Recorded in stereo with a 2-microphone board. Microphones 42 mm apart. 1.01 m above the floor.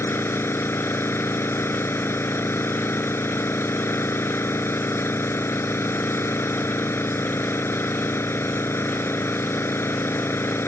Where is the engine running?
85° left.